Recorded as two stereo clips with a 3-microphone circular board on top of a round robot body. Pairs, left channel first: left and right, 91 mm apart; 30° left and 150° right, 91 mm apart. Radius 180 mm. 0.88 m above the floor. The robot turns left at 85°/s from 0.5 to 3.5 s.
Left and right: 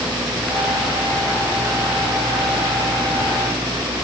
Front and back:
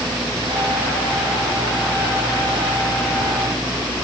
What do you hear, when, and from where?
Only background noise.